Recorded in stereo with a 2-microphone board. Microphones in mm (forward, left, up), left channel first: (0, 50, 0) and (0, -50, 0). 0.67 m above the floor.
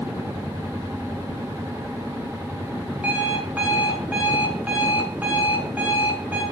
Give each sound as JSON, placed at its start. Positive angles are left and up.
{"t": 3.0, "sound": "an alarm clock", "side_deg": -15, "distance_m": 5.0}